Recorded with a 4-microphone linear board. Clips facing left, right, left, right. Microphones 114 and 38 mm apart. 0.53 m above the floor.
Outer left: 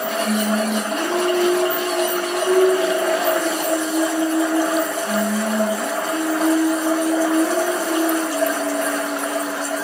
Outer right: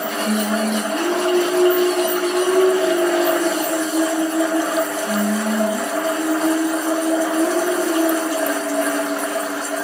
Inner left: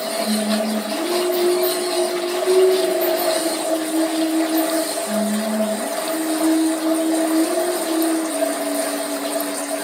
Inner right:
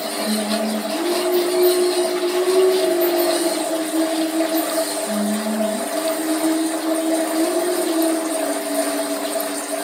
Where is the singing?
15° right (ahead or behind), 0.7 m.